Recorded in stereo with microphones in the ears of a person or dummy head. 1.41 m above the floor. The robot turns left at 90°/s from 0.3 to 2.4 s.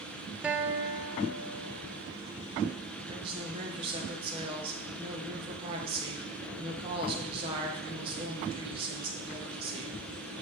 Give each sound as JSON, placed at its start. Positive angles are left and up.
{"t": 0.4, "sound": "a guitar", "azimuth_deg": -15, "distance_m": 0.6}
{"t": 3.1, "sound": "a woman speaking", "side_deg": -25, "distance_m": 1.5}